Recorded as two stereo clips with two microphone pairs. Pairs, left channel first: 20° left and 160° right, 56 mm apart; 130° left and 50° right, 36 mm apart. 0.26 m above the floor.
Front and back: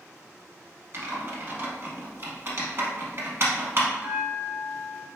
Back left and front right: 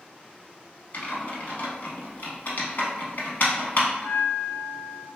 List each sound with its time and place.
0.9 s typing on a keyboard: 165° left, 0.7 m
3.9 s a bell: 150° left, 1.1 m